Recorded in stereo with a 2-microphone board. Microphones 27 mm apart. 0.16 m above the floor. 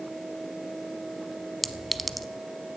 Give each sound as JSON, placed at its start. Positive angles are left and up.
{"t": 1.6, "sound": "a clink", "side_deg": 0, "distance_m": 0.6}